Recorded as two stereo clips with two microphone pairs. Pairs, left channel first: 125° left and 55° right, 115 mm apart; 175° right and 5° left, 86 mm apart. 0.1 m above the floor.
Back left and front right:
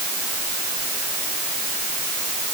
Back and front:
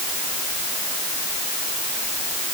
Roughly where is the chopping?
No chopping in this recording.